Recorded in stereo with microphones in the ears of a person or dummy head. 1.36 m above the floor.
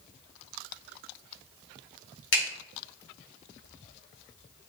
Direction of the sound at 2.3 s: 70° left (ahead or behind).